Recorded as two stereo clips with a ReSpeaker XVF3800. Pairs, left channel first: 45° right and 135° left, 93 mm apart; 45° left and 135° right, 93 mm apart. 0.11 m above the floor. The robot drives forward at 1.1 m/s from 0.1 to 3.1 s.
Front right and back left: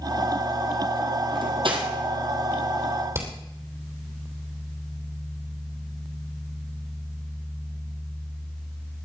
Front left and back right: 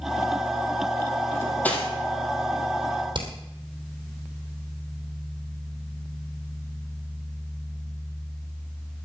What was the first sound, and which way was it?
Cutlery clinking, 110° left.